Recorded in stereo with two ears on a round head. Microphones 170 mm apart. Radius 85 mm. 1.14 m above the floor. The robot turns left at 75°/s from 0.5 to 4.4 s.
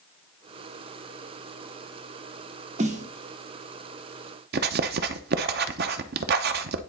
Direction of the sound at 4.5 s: 55° right (ahead or behind).